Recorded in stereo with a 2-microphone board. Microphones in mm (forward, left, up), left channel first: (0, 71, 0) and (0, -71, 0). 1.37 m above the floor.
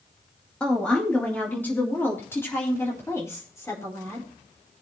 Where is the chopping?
No chopping in this recording.